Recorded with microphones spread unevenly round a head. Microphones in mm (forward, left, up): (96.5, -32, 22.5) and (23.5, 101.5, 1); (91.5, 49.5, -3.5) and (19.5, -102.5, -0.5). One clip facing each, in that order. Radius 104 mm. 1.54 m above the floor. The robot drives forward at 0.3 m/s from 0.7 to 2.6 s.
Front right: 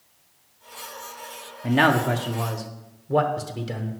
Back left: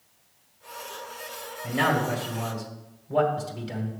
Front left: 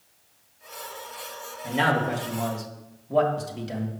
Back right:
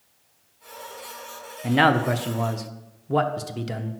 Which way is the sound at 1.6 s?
100° right.